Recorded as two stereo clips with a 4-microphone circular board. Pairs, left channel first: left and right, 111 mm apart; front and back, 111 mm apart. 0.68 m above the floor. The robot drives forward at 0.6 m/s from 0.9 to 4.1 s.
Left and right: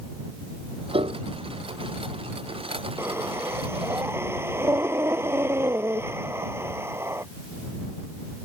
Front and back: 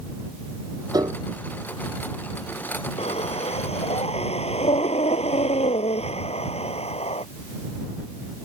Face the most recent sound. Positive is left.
turn(degrees=-20)